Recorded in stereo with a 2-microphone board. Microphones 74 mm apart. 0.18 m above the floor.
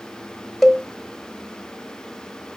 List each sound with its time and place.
0.6 s a cowbell: 5° left (ahead or behind), 1.6 m